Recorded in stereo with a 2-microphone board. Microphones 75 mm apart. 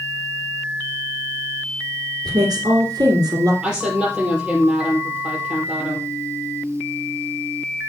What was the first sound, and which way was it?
A woman speaking, 60° right (ahead or behind).